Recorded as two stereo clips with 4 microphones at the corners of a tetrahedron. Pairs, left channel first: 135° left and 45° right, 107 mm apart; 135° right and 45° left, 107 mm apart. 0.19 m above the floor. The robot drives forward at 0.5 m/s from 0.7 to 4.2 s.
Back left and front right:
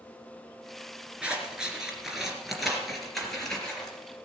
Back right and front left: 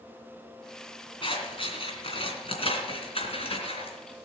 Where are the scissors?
125° right, 3 m; by 4.0 s 145° right, 3.5 m.